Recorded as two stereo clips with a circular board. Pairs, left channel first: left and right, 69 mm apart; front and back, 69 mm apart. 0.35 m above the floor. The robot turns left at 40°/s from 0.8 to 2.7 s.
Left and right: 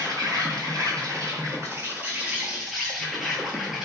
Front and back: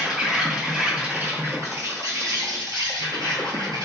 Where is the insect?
100° right, 0.7 m; by 3.9 s 175° right, 0.7 m.